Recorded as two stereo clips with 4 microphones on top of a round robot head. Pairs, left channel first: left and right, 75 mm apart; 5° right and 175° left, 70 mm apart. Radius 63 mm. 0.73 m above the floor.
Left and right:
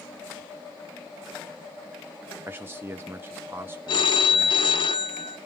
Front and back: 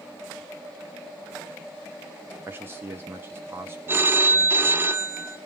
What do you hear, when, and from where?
2.5 s a man speaking: 140° right, 0.9 m
3.9 s a phone ringing: 115° left, 0.8 m